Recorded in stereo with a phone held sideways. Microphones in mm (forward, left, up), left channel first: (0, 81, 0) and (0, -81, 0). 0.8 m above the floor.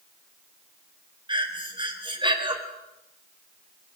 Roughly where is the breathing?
Right.